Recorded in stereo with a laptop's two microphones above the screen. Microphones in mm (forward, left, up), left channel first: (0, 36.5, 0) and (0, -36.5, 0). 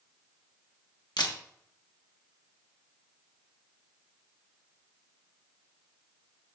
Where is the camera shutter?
80° left, 1.1 m.